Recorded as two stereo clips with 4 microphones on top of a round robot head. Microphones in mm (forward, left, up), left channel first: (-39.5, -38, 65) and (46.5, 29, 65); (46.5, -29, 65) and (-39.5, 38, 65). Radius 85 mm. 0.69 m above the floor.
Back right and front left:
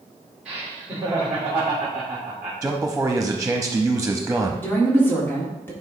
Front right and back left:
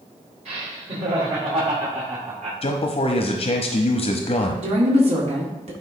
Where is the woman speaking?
150° left, 1.7 m.